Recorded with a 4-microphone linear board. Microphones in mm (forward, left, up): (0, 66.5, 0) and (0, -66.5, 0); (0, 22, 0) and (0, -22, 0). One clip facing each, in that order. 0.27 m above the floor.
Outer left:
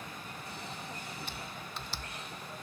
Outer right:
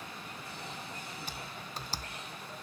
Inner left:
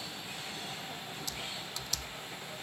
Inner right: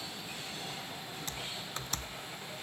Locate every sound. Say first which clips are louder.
1.3 s typing on a keyboard: even, inner right 2 dB; 40° right (ahead or behind)